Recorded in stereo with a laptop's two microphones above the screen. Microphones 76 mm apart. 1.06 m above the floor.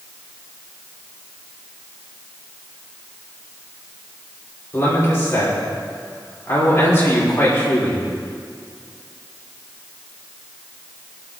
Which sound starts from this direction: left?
A man speaking, at 4.7 s.